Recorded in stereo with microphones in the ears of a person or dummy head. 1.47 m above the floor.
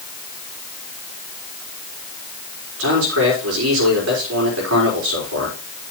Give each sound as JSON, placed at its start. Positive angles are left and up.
{"t": 2.8, "sound": "a man speaking", "side_deg": -75, "distance_m": 5.5}